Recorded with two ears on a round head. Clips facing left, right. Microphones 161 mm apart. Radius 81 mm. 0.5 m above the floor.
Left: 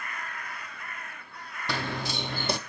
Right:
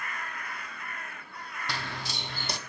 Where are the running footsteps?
45° left (ahead or behind), 0.8 m.